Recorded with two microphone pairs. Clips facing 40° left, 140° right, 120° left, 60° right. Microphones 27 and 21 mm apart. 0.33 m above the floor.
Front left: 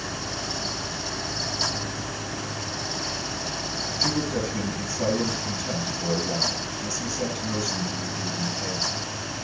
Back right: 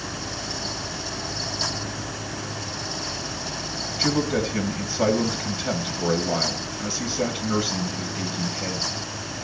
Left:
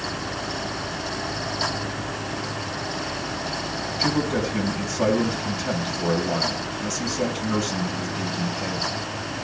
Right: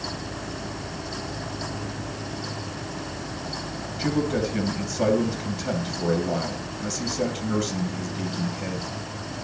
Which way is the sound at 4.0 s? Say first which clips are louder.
Back right 3 dB, left 1 dB; 155° right.